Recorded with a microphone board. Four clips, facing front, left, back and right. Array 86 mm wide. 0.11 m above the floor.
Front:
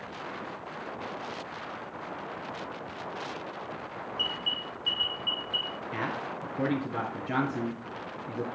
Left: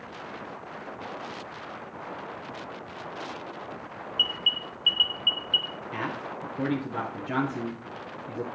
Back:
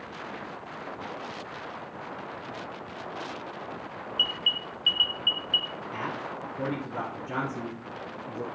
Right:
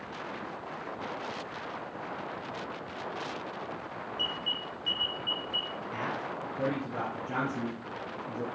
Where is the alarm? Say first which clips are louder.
Left 6 dB, back 1 dB; 125° left, 2 m.